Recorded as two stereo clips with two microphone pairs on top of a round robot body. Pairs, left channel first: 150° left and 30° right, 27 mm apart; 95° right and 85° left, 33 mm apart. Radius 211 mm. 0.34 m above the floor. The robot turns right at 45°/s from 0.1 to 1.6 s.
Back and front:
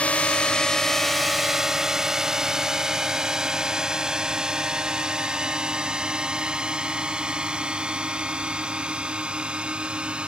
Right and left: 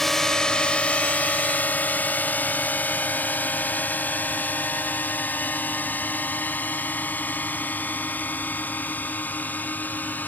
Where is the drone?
175° right; by 10.3 s 80° right.